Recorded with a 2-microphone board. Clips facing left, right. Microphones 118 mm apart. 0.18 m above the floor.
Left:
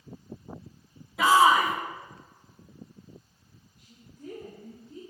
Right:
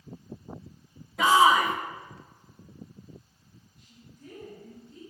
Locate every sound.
1.2 s a shout: 5° left (ahead or behind), 1.3 m
3.8 s a woman speaking: 50° left (ahead or behind), 3.5 m